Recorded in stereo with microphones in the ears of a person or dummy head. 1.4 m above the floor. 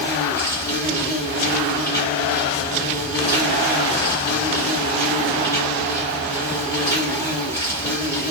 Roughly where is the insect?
Left.